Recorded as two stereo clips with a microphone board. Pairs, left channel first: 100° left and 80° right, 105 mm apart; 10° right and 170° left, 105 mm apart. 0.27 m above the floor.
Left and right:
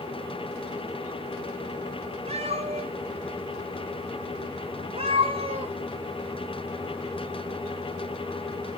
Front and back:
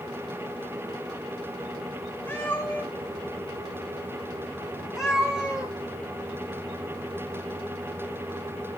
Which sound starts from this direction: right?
A cat meowing, at 2.3 s.